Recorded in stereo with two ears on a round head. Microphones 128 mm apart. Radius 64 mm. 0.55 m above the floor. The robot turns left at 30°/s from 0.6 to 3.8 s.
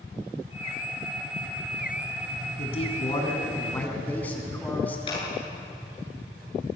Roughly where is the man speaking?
Ahead left.